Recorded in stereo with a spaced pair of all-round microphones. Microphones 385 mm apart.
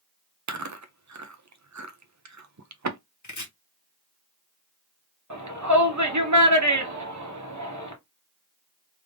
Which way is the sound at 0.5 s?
45° right (ahead or behind).